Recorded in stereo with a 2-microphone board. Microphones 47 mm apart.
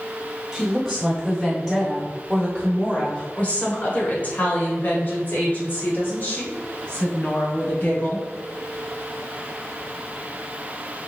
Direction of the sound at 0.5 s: 5° right (ahead or behind).